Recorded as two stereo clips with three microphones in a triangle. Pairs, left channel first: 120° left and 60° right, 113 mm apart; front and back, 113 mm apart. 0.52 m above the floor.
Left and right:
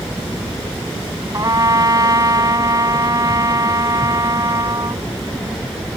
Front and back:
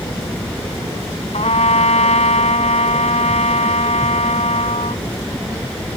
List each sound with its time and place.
1.3 s a trumpet: 5° right